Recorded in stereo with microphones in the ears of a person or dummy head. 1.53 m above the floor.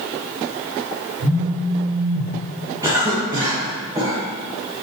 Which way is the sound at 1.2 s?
45° right (ahead or behind).